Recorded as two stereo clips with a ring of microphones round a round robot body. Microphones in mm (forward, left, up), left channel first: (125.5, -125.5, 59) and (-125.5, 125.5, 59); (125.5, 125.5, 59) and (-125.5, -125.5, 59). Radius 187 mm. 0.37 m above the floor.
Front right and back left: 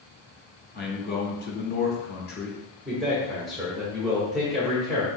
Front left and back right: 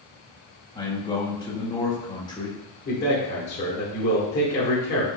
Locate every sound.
0.8 s a man speaking: 20° right, 1.2 m
2.9 s a man speaking: 45° left, 1.3 m